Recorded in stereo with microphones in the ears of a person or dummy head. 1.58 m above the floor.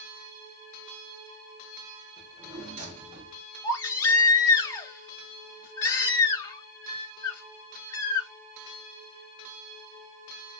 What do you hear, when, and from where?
2.2 s a drawer: 35° right (ahead or behind), 1.3 m
3.6 s a baby crying: 20° left (ahead or behind), 0.9 m